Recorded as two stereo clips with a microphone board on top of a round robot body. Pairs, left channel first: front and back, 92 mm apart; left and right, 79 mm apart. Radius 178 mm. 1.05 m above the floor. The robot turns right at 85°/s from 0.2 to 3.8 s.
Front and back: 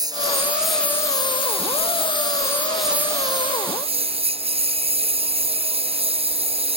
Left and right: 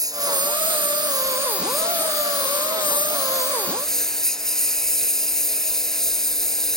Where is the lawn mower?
130° right; by 6.8 s 175° left.